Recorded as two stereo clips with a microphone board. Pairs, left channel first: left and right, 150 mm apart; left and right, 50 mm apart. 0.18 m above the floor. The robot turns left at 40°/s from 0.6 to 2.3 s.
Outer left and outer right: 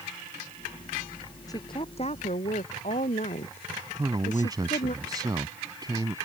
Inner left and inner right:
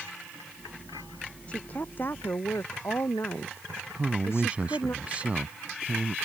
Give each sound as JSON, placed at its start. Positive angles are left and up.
{"t": 1.5, "sound": "a woman speaking", "azimuth_deg": 155}
{"t": 4.0, "sound": "a man speaking", "side_deg": -30}